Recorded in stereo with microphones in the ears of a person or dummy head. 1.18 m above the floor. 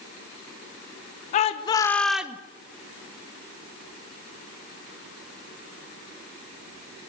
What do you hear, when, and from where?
1.3 s a shout: 40° left (ahead or behind), 1.0 m; by 2.4 s 15° right (ahead or behind), 1.0 m